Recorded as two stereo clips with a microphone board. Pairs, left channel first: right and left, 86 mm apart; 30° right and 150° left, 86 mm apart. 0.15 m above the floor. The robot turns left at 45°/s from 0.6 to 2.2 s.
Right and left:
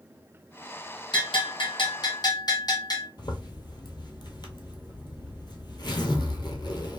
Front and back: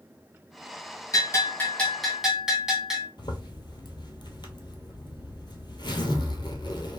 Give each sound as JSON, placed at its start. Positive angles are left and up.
{"t": 1.1, "sound": "a bell", "azimuth_deg": -80, "distance_m": 1.4}
{"t": 3.2, "sound": "a zipper", "azimuth_deg": -60, "distance_m": 0.6}